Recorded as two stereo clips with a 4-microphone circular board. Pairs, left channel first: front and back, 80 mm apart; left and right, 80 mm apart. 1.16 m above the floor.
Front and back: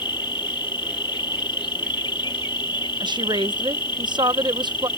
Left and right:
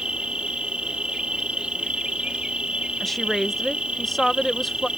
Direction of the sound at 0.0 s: 10° right.